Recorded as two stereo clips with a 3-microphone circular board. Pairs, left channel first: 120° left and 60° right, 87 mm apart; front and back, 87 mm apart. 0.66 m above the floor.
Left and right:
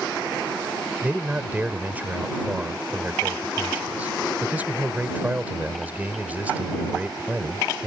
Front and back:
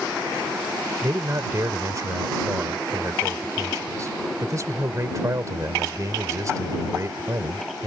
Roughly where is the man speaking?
Behind right.